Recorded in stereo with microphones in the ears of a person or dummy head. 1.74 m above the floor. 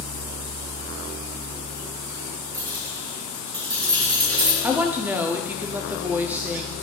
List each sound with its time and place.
2.5 s keys jangling: 15° right (ahead or behind), 3 m; by 4.5 s 20° right (ahead or behind), 4 m
4.6 s a woman speaking: 10° right (ahead or behind), 0.7 m